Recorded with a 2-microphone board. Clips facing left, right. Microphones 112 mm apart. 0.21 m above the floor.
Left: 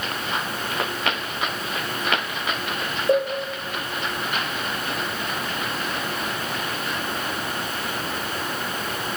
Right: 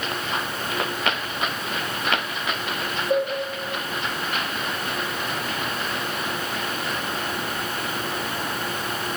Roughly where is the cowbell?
Left.